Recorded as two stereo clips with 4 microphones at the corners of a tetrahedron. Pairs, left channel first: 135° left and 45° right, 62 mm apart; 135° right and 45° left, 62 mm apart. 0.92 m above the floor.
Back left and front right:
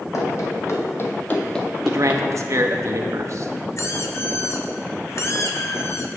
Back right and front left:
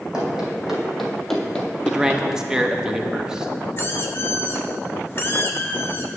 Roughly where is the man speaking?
Ahead right.